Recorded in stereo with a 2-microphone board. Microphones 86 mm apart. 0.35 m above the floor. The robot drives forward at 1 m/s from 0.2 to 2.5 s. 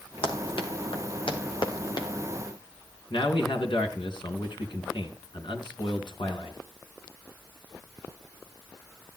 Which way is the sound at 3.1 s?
70° left (ahead or behind).